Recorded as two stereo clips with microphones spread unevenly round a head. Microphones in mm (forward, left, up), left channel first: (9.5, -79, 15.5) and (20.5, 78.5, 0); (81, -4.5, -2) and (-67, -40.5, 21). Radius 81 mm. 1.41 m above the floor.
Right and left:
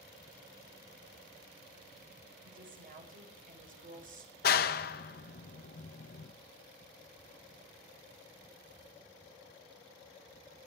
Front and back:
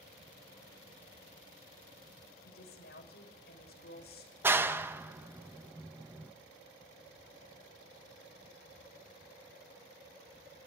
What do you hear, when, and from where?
2.4 s a woman speaking: 50° left, 5.5 m
4.4 s a clap: 95° right, 0.9 m